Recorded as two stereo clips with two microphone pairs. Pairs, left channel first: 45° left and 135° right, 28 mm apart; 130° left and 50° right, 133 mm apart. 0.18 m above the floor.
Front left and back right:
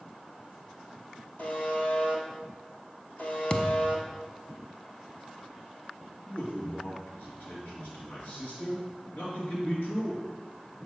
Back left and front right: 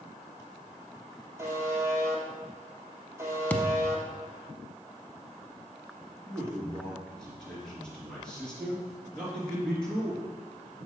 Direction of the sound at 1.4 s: 20° left.